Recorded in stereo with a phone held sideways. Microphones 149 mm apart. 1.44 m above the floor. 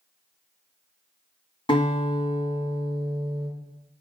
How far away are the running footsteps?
I don't hear running footsteps.